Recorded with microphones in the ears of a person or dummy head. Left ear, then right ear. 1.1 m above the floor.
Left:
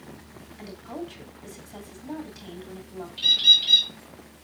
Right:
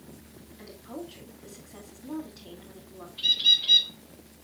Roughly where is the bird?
Left.